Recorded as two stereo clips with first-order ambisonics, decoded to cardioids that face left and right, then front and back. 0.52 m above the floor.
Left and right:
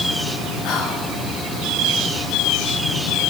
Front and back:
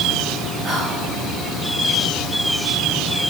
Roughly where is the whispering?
Left.